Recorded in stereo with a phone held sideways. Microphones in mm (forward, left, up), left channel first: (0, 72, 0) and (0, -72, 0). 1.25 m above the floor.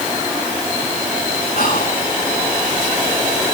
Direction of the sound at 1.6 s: 70° left (ahead or behind).